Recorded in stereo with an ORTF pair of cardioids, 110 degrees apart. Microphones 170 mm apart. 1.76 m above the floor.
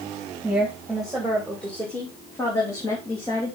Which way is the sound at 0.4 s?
5° right.